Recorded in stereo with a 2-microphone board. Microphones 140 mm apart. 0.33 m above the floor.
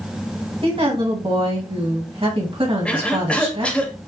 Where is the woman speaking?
40° right (ahead or behind), 1.8 m.